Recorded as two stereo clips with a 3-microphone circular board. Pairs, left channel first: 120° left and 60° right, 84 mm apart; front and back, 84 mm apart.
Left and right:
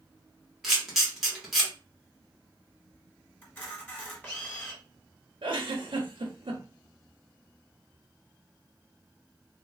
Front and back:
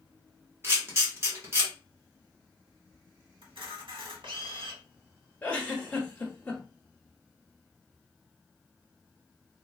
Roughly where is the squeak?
I don't hear a squeak.